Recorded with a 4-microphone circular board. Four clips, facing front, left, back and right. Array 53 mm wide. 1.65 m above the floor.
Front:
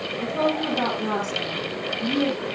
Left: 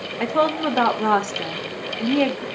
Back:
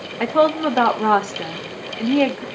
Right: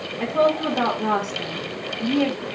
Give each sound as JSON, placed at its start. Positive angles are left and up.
{"t": 0.2, "sound": "a woman speaking", "azimuth_deg": 155, "distance_m": 1.5}